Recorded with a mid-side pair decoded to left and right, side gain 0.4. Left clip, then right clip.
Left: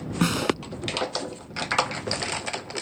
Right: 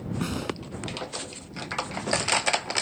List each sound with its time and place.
0.2 s a snare drum: 60° left